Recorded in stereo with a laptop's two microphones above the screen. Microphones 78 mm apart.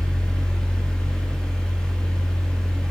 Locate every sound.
0.0 s a fan: 10° left (ahead or behind), 1.5 m